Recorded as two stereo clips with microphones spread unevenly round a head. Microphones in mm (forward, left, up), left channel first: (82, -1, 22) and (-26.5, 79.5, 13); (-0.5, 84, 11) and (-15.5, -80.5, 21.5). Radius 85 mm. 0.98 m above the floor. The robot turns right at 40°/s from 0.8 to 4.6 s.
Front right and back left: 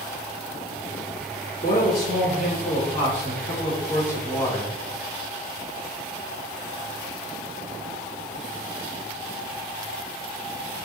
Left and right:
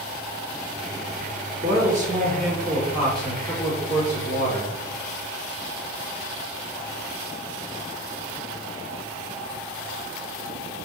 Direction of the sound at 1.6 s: 65° right.